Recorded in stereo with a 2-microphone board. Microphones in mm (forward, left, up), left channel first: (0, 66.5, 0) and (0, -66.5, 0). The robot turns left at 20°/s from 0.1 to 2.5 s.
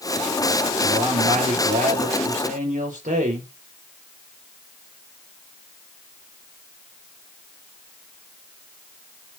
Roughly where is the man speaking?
Ahead right.